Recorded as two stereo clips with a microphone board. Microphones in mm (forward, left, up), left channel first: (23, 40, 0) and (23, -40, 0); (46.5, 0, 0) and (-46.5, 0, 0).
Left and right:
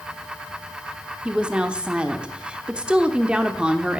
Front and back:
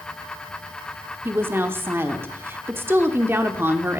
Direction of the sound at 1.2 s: 155° right.